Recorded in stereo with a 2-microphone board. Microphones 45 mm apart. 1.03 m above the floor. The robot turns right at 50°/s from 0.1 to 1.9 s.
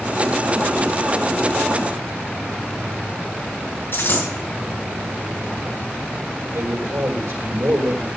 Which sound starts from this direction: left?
A dropped coin, at 3.9 s.